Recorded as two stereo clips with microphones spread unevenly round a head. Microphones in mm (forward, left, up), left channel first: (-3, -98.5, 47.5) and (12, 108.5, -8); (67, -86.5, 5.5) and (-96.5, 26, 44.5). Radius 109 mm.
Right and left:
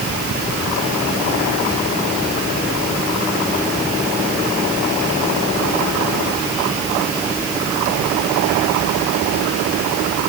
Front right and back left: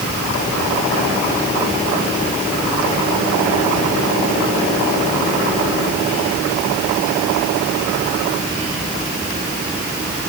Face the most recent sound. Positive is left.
No sound to turn to.